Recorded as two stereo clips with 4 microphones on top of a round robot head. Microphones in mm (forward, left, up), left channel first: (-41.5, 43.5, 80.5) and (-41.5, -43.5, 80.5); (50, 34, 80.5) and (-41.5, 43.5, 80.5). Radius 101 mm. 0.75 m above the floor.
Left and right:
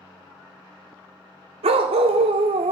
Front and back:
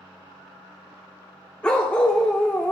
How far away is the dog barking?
About 0.7 m.